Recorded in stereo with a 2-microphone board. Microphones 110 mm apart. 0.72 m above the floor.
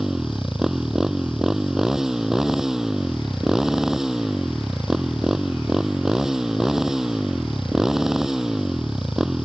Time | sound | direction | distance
0.0 | a motorcycle | 5° right (ahead or behind) | ?